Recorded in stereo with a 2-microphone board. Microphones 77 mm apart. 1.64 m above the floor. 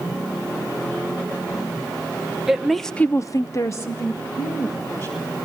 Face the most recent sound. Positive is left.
turn(degrees=25)  # may be behind; listen again after turning